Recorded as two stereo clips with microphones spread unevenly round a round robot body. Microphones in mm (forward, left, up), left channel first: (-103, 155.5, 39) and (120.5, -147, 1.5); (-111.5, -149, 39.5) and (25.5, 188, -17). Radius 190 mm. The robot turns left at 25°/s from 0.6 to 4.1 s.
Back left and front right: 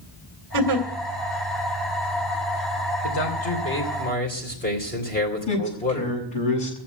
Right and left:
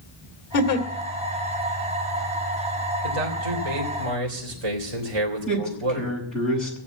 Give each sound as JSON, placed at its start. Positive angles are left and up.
{"t": 0.5, "sound": "a giggle", "azimuth_deg": -90, "distance_m": 3.0}
{"t": 3.0, "sound": "a man speaking", "azimuth_deg": 85, "distance_m": 3.0}
{"t": 5.5, "sound": "a man speaking", "azimuth_deg": 140, "distance_m": 7.0}